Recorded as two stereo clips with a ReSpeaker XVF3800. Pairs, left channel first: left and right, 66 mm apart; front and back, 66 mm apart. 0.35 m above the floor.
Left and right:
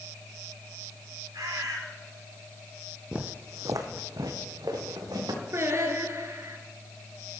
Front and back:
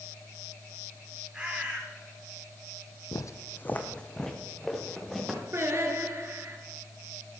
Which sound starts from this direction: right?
A bird, at 1.3 s.